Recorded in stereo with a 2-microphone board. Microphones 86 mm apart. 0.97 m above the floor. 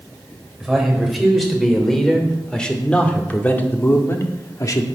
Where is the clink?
I don't hear a clink.